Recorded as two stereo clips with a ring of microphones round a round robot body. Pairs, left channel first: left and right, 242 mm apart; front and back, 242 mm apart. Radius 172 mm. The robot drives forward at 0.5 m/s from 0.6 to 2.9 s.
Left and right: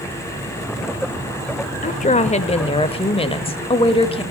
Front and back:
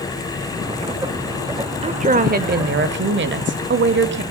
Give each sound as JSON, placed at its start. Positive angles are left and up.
{"t": 1.8, "sound": "a woman speaking", "azimuth_deg": 130, "distance_m": 1.0}